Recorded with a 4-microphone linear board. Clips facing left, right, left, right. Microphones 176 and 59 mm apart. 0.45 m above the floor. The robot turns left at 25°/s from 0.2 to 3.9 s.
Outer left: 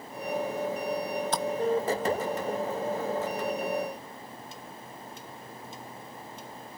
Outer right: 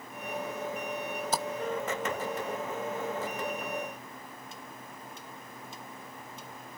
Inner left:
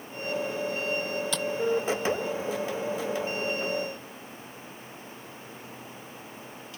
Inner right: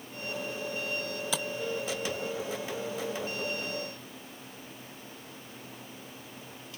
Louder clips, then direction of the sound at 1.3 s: Even, inner left 3 dB; 5° right (ahead or behind).